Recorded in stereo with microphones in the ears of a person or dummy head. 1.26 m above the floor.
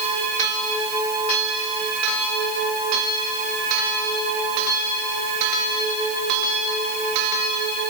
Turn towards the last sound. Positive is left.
No sound to turn to.